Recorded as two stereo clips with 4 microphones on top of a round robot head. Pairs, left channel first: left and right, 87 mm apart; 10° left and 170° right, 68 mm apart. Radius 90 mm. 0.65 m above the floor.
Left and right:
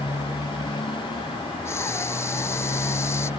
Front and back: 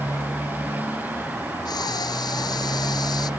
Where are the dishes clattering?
I don't hear dishes clattering.